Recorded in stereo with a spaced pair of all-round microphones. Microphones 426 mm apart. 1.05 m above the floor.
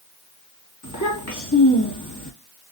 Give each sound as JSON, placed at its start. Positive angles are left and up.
{"t": 0.8, "sound": "a child speaking", "side_deg": 40, "distance_m": 1.2}